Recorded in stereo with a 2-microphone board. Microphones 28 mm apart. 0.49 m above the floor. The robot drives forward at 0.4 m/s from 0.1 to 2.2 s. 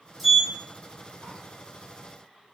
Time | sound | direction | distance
0.2 | a sliding door | centre (ahead or behind) | 1.0 m